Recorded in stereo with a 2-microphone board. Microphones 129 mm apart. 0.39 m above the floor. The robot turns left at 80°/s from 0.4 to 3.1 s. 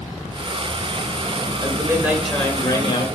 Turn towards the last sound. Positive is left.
turn(degrees=115)